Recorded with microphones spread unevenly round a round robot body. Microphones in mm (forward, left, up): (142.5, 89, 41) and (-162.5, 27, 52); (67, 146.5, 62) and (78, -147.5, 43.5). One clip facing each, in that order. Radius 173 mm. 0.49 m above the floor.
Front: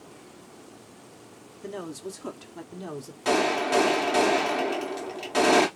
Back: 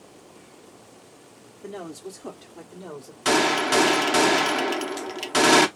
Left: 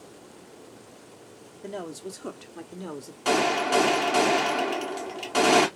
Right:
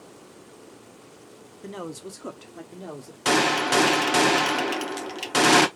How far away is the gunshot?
About 0.8 m.